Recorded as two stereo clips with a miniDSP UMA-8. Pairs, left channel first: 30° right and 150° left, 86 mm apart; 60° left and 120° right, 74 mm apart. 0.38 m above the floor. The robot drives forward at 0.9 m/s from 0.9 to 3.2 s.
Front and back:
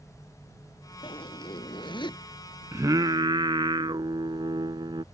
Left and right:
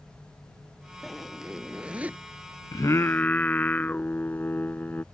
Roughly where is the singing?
Left.